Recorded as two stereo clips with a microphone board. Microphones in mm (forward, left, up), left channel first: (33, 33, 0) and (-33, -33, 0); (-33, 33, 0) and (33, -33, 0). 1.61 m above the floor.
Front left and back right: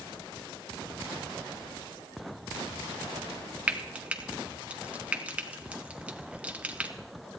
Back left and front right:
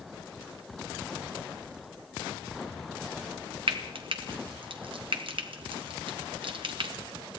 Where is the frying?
60° right, 1.1 m.